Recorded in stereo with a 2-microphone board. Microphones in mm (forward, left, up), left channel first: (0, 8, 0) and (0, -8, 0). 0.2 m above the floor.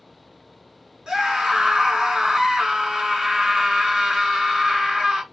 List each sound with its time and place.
1.1 s a scream: 60° right (ahead or behind), 3 m